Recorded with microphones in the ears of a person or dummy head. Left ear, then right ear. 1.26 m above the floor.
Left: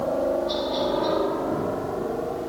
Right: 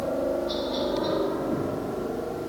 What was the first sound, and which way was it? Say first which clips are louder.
A helicopter: left 3 dB; 25° left (ahead or behind).